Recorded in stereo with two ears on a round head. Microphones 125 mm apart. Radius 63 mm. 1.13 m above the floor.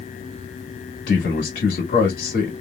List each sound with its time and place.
1.1 s a man speaking: 85° left, 1.7 m